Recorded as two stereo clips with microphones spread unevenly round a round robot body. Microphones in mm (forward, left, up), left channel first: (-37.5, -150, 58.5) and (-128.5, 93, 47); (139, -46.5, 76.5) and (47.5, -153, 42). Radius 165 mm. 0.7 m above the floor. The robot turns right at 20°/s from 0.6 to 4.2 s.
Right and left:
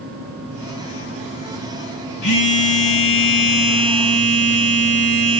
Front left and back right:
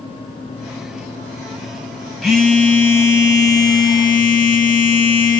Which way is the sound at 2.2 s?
40° right.